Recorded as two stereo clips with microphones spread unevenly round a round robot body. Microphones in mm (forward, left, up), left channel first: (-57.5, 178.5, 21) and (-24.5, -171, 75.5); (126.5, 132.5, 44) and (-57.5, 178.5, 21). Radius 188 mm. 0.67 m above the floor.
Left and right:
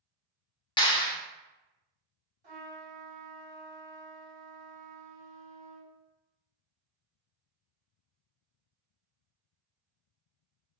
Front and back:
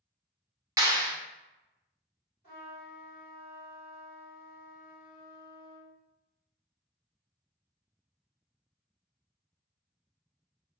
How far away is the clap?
About 0.9 m.